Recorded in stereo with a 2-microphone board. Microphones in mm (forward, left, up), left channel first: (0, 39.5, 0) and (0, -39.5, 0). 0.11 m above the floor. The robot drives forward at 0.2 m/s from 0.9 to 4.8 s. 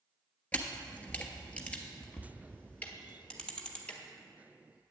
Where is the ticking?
20° left (ahead or behind), 0.9 m; by 4.0 s 15° left (ahead or behind), 1.1 m.